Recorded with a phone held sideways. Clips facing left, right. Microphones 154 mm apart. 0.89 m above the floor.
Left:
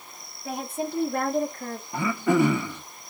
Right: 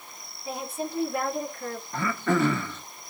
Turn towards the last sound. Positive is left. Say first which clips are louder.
# left 4 dB
turn(degrees=15)  # may be behind; listen again after turning